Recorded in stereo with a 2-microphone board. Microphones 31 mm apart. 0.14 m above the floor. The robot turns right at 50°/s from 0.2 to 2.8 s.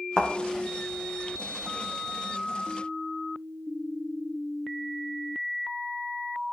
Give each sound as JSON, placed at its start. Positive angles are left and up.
{"t": 0.2, "sound": "a thud", "side_deg": 30, "distance_m": 2.0}